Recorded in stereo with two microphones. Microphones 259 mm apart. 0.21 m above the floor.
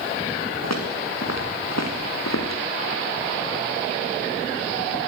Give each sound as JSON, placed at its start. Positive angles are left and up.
{"t": 0.6, "sound": "footsteps", "side_deg": 90, "distance_m": 5.0}